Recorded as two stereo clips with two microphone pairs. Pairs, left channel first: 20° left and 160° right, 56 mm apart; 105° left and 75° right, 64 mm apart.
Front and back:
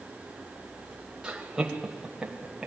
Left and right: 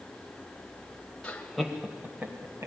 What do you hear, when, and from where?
1.2 s laughter: 145° left, 1.3 m; by 2.7 s 85° right, 1.8 m